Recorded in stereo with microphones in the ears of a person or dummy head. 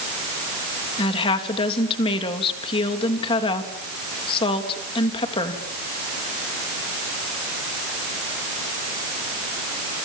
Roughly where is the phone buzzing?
I don't hear a phone buzzing.